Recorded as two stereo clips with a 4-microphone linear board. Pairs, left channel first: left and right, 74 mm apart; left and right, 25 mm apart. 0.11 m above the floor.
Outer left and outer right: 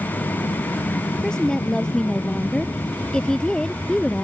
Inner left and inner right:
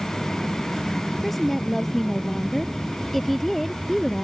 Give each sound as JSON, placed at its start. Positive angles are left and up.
{"t": 0.0, "sound": "an aircraft", "side_deg": 60}
{"t": 1.2, "sound": "a woman speaking", "side_deg": 10}